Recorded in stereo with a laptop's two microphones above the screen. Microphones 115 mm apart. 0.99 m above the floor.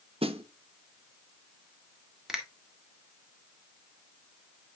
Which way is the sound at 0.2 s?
55° right (ahead or behind).